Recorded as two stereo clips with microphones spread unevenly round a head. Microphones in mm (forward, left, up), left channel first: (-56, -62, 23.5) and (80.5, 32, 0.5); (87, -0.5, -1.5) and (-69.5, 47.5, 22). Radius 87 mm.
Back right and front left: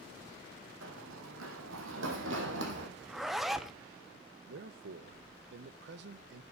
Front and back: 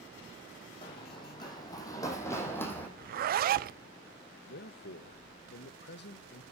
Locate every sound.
0.8 s running footsteps: 45° left, 3.5 m; by 2.9 s 65° left, 3.5 m
3.0 s a zipper: 125° left, 0.6 m
4.5 s a man speaking: 10° left, 0.9 m